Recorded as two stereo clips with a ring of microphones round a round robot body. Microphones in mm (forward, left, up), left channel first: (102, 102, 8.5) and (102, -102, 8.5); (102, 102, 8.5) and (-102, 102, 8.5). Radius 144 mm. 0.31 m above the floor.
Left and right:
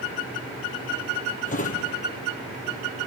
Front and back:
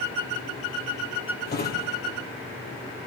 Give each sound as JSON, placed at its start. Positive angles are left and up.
{"t": 1.5, "sound": "a drawer", "azimuth_deg": 40, "distance_m": 4.0}